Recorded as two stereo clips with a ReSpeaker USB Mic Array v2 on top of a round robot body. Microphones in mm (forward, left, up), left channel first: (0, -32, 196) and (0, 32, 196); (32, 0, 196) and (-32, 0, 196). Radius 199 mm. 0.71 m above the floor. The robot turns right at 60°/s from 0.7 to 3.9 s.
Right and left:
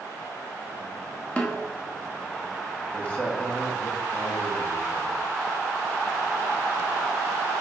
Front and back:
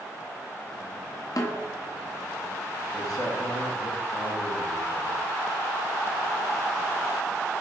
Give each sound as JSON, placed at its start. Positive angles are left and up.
{"t": 1.4, "sound": "a snare drum", "azimuth_deg": -20, "distance_m": 1.5}
{"t": 2.9, "sound": "a man speaking", "azimuth_deg": -45, "distance_m": 2.0}